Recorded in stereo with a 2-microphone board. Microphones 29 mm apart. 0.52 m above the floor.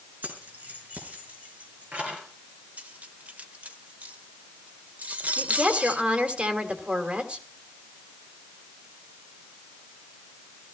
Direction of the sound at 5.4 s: 50° right (ahead or behind).